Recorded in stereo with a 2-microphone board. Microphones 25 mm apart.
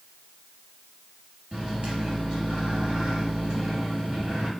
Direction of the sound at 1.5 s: 45° right (ahead or behind).